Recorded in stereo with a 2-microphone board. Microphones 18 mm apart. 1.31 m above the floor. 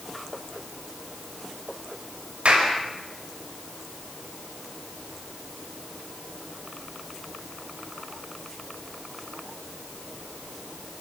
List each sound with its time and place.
2.5 s a clap: 85° right, 5.5 m